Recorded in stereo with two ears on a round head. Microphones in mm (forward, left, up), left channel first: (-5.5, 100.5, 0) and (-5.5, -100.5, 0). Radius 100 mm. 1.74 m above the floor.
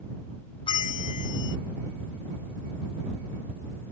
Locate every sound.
0.7 s a bell: 25° left (ahead or behind)